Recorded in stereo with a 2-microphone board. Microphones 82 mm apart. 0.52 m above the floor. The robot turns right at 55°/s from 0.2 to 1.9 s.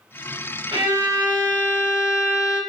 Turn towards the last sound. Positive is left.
turn(degrees=-20)